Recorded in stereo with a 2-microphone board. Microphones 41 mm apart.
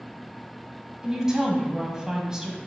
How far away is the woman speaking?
About 1.1 m.